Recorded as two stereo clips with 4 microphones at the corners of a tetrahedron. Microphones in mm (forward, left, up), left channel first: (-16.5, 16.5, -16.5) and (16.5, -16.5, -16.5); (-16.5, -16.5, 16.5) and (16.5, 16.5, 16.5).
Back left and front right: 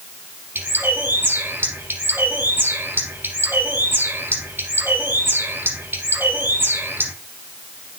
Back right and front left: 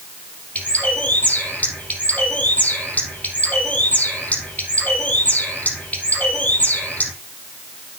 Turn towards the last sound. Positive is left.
turn(degrees=-80)